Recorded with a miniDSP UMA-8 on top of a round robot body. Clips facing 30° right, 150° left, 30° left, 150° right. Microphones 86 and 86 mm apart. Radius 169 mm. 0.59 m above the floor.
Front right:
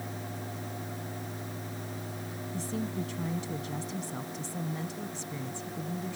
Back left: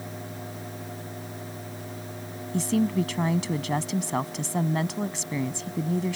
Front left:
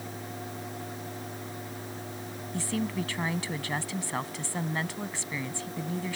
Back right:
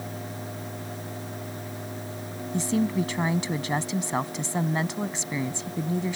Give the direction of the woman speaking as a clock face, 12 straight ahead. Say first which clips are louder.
Back left 11 dB, back right 7 dB; 7 o'clock.